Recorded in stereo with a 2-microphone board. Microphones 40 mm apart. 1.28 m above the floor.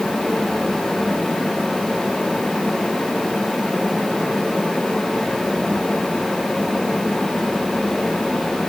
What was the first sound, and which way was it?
Only background noise.